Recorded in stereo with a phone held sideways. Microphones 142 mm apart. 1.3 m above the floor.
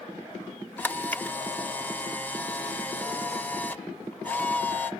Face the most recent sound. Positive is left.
turn(degrees=10)  # may be behind; listen again after turning